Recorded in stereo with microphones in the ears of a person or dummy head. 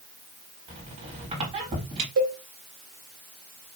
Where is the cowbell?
80° right, 1.4 m.